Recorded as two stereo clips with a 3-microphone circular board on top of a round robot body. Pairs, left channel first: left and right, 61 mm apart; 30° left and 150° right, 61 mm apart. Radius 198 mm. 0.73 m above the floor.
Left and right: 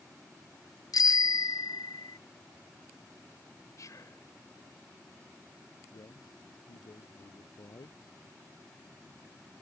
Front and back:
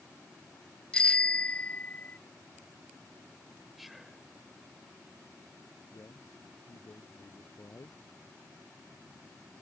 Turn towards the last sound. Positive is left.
turn(degrees=80)